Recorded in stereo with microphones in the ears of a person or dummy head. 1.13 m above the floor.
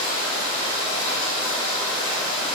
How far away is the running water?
About 2.5 m.